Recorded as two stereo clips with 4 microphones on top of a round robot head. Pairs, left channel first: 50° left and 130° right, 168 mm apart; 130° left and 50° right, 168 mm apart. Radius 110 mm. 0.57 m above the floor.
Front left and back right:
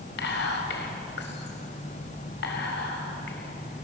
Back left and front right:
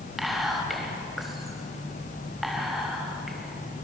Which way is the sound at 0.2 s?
40° left.